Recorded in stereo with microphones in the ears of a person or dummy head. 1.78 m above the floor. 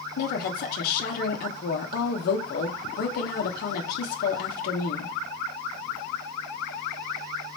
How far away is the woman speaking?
About 0.7 m.